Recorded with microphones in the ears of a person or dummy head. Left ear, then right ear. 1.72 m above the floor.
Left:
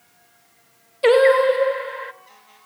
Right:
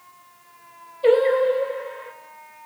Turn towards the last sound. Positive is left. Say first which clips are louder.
# left 3 dB
turn(degrees=55)  # may be behind; listen again after turning